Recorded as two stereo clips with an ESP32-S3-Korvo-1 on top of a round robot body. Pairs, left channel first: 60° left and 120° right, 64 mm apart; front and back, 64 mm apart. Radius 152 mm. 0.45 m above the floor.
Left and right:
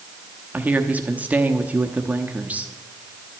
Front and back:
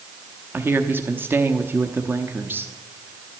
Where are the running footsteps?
No running footsteps in this recording.